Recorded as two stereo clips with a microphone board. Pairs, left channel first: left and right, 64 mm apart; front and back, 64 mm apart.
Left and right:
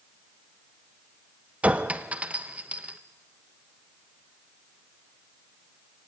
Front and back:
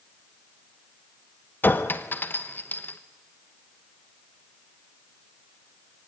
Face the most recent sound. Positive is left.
turn(degrees=-35)